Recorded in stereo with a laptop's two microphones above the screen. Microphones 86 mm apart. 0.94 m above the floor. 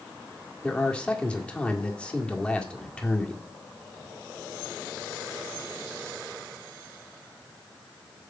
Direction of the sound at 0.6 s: 10° left (ahead or behind).